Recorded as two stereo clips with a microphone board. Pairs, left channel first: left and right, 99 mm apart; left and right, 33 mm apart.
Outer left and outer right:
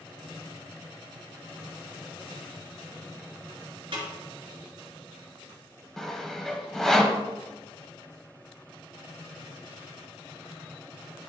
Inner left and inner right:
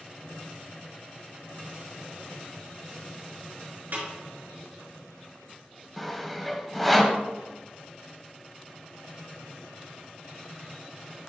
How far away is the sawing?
About 0.8 m.